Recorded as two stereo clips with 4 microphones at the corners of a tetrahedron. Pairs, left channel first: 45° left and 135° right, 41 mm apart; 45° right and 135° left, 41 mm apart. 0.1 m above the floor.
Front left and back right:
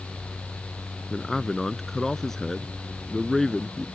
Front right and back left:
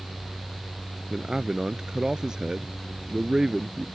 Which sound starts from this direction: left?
A man speaking, at 1.1 s.